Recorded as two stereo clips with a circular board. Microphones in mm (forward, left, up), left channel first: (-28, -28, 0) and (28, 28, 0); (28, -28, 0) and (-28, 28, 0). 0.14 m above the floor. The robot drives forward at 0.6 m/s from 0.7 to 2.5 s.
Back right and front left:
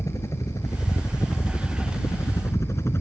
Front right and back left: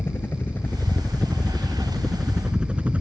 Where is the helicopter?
100° right; by 3.0 s 170° right.